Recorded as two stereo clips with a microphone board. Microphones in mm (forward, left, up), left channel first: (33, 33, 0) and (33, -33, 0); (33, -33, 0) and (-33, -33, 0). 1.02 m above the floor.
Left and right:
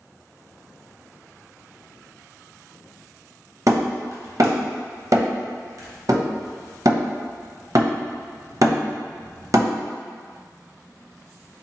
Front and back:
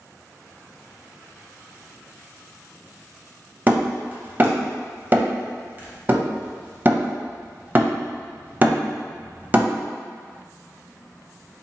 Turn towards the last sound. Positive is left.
turn(degrees=-120)